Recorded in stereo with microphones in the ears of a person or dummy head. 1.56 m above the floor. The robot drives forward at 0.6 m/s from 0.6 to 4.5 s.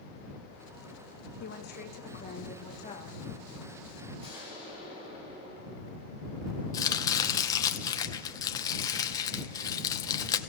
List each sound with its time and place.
1.4 s a woman speaking: 70° left (ahead or behind), 1.4 m; by 3.2 s 40° left (ahead or behind), 2 m
4.2 s an explosion: 15° right (ahead or behind), 8 m
6.7 s chopping: 15° left (ahead or behind), 0.8 m